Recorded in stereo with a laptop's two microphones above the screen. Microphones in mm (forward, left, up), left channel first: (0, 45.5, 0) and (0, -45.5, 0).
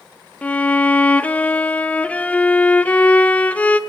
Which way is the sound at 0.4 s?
15° left (ahead or behind).